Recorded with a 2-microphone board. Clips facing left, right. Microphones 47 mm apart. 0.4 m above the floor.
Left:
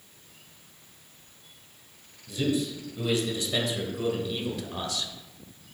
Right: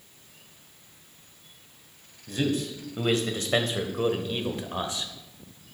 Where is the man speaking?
60° right (ahead or behind), 2 m; by 5.1 s 25° right (ahead or behind), 1.3 m.